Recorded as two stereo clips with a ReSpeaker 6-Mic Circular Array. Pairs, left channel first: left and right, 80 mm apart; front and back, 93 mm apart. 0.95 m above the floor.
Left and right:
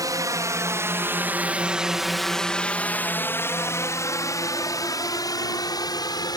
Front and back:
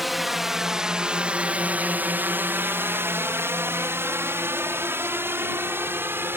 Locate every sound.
0.0 s a drone: 90° right; by 6.4 s 115° left